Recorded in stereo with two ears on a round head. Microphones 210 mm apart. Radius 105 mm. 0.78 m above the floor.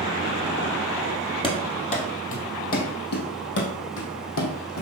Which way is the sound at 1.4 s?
25° left (ahead or behind).